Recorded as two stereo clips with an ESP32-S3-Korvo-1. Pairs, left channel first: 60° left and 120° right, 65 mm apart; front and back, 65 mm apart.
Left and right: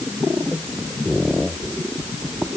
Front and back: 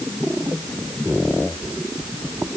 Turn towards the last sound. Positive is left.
No sound to turn to.